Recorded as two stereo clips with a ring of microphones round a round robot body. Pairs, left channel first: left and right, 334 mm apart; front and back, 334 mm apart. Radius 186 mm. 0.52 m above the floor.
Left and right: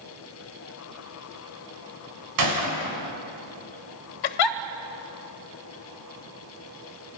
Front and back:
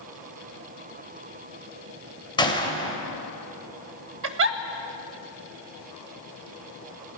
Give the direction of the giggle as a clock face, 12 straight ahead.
8 o'clock.